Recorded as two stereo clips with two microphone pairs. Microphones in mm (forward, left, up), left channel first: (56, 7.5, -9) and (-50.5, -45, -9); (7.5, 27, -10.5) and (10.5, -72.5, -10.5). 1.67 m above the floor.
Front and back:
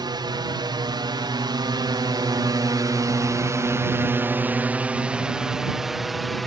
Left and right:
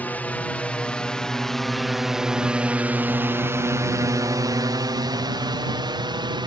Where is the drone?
160° left; by 6.5 s 65° right.